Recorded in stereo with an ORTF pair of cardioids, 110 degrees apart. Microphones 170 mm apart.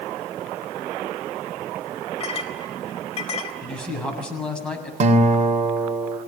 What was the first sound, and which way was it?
A clink, 35° left.